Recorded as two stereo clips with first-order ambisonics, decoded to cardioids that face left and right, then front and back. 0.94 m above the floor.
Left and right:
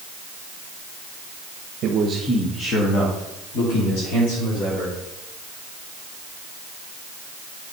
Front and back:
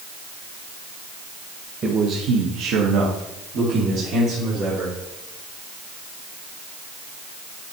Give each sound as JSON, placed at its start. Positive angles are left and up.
{"t": 1.8, "sound": "a man speaking", "azimuth_deg": -120, "distance_m": 0.9}